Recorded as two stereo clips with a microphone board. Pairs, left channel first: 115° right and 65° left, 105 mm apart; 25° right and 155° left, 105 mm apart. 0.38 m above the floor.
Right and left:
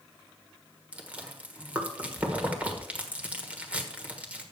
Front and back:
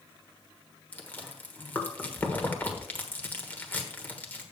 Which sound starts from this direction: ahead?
Chewing, at 0.9 s.